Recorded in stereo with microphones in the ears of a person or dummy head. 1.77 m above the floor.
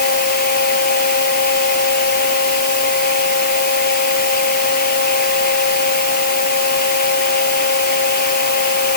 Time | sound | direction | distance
0.0 | a fan | 50° left (ahead or behind) | ?